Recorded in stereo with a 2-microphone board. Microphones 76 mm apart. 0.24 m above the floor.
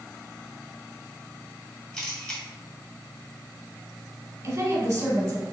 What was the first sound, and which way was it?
A camera shutter, 10° left (ahead or behind).